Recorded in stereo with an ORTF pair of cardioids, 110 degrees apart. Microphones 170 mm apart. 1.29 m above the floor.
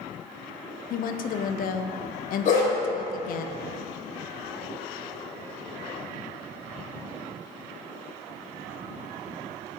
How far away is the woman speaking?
About 0.6 m.